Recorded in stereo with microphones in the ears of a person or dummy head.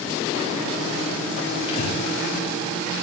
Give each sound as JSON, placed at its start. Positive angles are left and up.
{"t": 1.7, "sound": "breathing", "side_deg": 40, "distance_m": 4.0}